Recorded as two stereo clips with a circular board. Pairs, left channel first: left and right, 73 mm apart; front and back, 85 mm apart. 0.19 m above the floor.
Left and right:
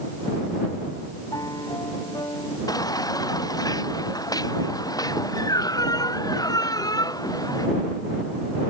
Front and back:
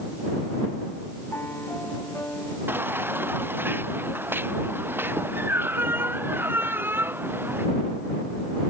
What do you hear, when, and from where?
1.3 s a piano: 65° left
2.7 s a baby crying: 115° left